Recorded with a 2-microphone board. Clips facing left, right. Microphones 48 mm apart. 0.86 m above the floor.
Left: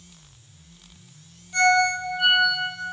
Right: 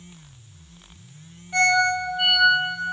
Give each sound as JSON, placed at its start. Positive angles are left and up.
{"t": 1.5, "sound": "a ringtone", "side_deg": -65, "distance_m": 0.9}